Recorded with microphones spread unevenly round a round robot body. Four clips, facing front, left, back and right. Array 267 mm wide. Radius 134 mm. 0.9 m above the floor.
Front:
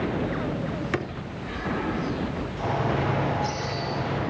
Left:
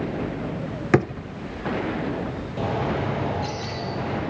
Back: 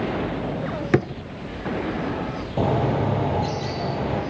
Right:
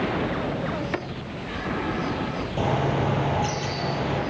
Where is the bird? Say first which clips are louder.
Right 1 dB, back 5 dB; 170° right, 8.5 m.